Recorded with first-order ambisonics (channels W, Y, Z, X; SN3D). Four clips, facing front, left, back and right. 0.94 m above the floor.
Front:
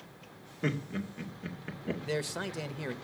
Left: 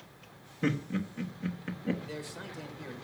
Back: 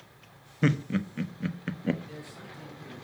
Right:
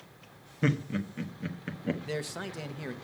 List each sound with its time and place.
0.6 s laughter: 165° right, 1.1 m
2.0 s a man speaking: 30° right, 0.7 m